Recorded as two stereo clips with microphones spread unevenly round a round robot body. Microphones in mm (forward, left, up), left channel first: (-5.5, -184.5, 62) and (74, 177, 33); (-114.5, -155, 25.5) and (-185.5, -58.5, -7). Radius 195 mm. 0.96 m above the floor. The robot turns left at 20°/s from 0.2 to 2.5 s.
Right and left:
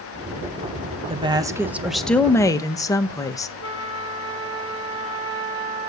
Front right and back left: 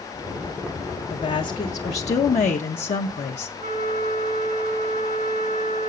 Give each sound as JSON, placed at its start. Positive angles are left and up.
{"t": 1.1, "sound": "a woman speaking", "azimuth_deg": 10, "distance_m": 0.8}
{"t": 3.6, "sound": "a flute", "azimuth_deg": 105, "distance_m": 6.5}